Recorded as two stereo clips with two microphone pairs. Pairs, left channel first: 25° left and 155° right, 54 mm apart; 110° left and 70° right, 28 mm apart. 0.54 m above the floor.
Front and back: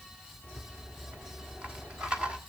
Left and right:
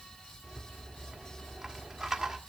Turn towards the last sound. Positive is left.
turn(degrees=-110)